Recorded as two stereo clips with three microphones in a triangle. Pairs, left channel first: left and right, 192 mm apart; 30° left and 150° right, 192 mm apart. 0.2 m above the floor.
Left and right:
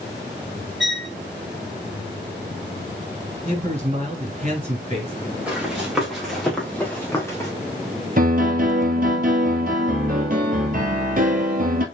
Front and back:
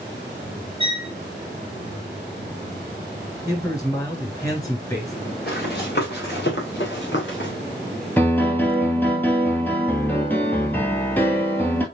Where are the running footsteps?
5° right, 3.5 m; by 7.5 s 20° left, 2 m.